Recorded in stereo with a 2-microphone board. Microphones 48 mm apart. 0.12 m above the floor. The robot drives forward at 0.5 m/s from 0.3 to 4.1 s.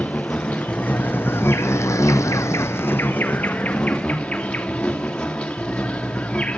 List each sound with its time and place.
0.0 s an insect: 25° left (ahead or behind), 1.0 m